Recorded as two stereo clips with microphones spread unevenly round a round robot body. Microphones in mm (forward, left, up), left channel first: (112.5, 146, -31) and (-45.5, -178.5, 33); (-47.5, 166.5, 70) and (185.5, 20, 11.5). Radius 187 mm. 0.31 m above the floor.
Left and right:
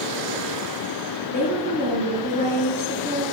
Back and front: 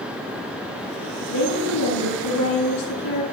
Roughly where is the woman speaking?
Behind left.